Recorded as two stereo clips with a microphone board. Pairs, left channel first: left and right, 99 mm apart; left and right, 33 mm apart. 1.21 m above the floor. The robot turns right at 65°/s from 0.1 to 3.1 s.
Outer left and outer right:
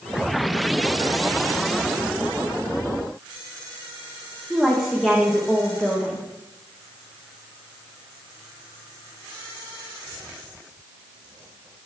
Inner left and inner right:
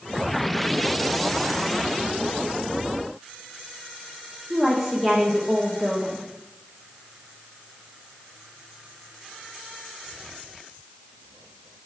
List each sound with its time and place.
4.5 s a woman speaking: centre (ahead or behind), 1.0 m